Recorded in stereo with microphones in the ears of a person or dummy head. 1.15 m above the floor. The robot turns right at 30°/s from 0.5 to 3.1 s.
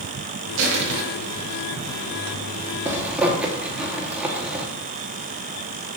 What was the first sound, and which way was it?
Crushing, 70° right (ahead or behind).